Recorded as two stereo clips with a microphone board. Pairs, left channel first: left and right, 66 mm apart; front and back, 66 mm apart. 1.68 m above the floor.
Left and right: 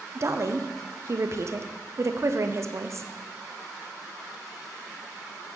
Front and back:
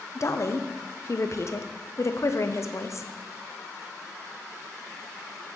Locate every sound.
0.1 s a woman speaking: 45° right, 0.7 m